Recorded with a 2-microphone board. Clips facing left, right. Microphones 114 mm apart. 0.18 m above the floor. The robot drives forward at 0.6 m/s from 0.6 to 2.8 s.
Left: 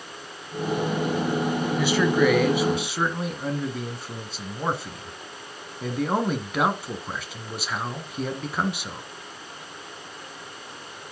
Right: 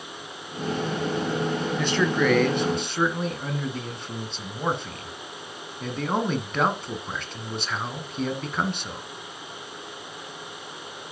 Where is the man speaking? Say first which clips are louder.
Left 3 dB; 5° left (ahead or behind), 1.2 m.